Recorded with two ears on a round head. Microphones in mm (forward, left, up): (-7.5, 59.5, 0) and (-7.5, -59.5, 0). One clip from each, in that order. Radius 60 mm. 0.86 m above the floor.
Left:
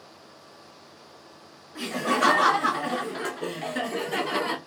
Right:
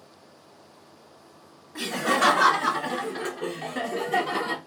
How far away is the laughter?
About 0.8 m.